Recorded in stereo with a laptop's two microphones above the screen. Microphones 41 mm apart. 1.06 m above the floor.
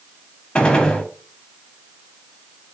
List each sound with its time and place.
0.6 s a gunshot: 20° left (ahead or behind), 0.9 m